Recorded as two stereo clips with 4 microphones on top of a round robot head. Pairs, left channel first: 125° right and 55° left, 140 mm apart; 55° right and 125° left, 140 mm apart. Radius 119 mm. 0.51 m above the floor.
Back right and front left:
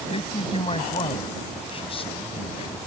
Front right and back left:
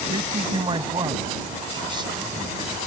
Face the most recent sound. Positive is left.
turn(degrees=-175)